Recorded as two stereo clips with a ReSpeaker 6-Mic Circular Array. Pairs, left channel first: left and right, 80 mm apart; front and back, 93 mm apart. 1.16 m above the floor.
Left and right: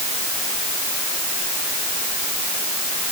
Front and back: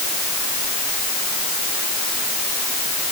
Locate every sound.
Only background noise.